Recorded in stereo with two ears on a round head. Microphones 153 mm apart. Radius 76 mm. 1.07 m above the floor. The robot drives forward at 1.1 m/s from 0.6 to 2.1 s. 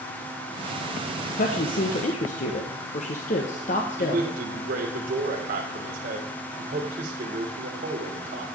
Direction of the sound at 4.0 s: 55° right (ahead or behind).